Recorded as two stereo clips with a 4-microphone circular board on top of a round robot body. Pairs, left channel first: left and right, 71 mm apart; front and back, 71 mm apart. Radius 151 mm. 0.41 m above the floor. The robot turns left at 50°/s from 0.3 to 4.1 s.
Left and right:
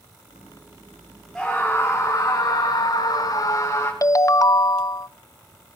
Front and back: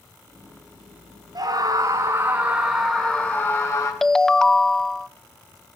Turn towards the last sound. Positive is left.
turn(degrees=80)